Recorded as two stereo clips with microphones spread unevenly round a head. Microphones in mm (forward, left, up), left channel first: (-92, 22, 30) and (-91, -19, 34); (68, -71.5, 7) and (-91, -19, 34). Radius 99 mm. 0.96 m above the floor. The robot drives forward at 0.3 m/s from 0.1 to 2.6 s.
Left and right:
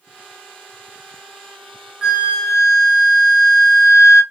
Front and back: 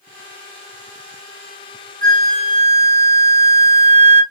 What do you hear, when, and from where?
2.0 s a flute: 165° right, 1.9 m